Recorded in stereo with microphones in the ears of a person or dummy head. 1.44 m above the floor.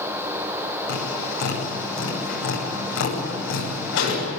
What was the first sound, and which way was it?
Tapping, 75° left (ahead or behind).